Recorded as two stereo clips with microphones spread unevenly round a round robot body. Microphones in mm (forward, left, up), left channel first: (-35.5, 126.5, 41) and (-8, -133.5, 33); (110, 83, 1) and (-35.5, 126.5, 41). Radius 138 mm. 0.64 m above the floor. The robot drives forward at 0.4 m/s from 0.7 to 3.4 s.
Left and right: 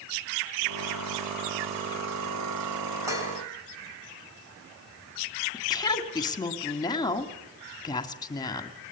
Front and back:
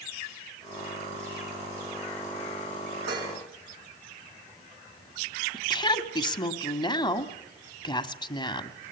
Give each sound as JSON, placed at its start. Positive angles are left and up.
{"t": 3.1, "sound": "dishes clattering", "azimuth_deg": -160, "distance_m": 3.5}
{"t": 5.5, "sound": "a woman speaking", "azimuth_deg": 20, "distance_m": 1.5}